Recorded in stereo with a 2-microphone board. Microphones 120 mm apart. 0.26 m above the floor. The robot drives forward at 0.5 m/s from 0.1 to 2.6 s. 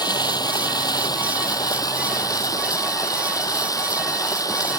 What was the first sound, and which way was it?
Running water, 35° left (ahead or behind).